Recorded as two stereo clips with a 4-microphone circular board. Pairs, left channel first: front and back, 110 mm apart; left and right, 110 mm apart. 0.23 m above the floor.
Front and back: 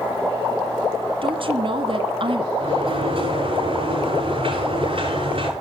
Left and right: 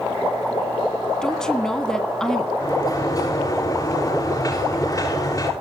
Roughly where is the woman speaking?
Behind.